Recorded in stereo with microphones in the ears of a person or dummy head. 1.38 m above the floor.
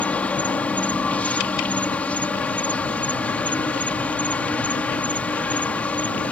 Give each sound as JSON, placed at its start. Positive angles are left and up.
{"t": 0.0, "sound": "an insect", "side_deg": 15}